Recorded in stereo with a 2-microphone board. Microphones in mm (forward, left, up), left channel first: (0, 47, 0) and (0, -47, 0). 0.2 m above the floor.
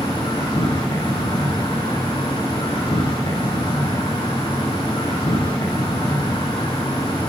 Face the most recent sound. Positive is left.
turn(degrees=70)  # may be behind; listen again after turning